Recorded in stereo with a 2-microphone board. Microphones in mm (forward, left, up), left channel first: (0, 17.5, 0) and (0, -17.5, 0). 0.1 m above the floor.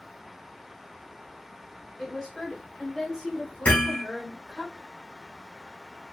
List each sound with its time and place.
2.0 s a woman speaking: 5° left (ahead or behind), 1.7 m; by 4.7 s 30° left (ahead or behind), 2.0 m
3.6 s hammering: 50° left (ahead or behind), 1.5 m